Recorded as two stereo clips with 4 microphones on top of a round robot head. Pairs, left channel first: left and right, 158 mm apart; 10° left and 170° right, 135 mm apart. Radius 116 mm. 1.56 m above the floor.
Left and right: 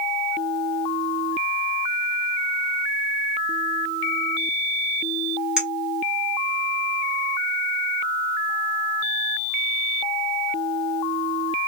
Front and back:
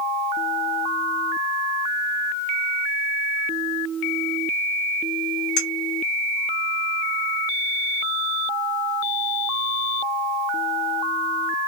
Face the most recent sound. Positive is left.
turn(degrees=-5)